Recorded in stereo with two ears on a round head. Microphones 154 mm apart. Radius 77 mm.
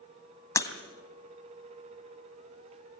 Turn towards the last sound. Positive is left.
turn(degrees=20)  # may be behind; listen again after turning